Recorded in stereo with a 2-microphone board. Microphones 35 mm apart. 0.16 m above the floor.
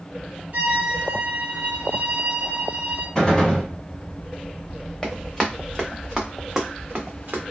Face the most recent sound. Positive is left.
turn(degrees=-55)  # may be behind; listen again after turning